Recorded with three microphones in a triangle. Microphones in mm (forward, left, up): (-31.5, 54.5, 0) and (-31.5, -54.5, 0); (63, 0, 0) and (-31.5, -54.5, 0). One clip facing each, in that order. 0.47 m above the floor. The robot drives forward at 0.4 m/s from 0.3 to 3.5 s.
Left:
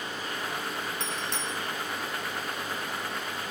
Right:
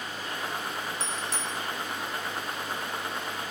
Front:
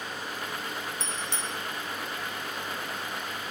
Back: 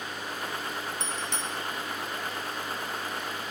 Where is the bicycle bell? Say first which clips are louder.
Even, back 1 dB; 175° right, 3.5 m.